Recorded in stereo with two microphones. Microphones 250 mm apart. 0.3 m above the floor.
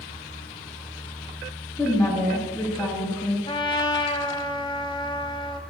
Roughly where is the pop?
I don't hear a pop.